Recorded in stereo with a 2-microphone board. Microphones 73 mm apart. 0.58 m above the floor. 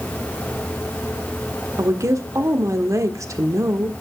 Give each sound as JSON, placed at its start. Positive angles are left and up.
{"t": 1.8, "sound": "a woman speaking", "side_deg": -50, "distance_m": 1.4}